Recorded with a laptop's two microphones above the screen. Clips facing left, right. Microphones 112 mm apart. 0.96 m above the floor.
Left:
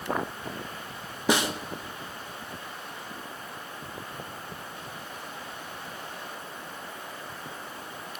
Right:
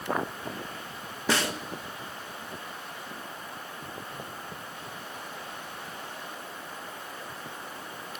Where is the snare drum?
15° left (ahead or behind), 0.6 m.